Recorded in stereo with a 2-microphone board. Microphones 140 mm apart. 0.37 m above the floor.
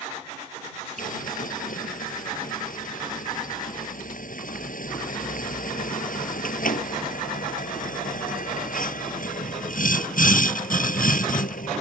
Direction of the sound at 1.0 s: 80° left.